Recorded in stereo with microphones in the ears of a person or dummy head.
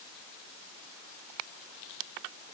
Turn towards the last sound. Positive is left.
No sound to turn to.